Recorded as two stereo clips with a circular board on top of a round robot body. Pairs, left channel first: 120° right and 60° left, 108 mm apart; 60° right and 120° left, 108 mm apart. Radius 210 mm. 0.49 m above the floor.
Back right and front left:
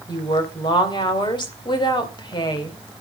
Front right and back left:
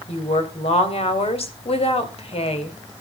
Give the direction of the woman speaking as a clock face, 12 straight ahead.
3 o'clock.